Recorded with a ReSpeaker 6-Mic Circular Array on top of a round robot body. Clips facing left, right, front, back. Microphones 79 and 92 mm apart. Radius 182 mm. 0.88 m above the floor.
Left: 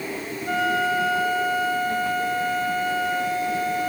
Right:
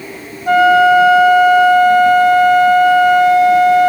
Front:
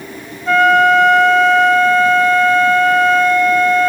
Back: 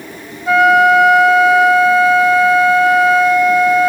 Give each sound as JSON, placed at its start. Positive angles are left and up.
{"t": 0.5, "sound": "a flute", "azimuth_deg": -95}